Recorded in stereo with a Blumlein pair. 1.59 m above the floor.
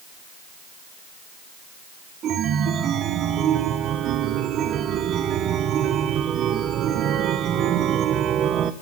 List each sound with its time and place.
2.2 s a chime: 30° right, 0.6 m